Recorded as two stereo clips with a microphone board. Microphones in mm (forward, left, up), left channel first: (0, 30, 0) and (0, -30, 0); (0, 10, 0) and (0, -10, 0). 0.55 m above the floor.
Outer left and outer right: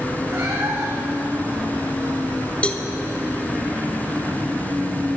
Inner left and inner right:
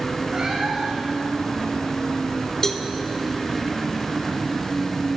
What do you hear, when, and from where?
0.3 s a cat meowing: 50° right (ahead or behind), 6.5 m
2.6 s a cowbell: 20° left (ahead or behind), 1.2 m